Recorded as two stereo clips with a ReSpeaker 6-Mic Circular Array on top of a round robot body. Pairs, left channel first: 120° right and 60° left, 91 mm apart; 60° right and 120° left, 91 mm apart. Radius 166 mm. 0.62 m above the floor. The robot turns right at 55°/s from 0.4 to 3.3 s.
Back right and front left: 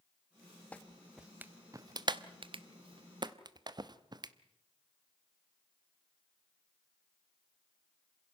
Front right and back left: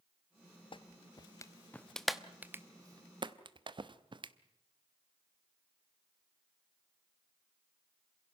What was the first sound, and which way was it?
A clap, 45° right.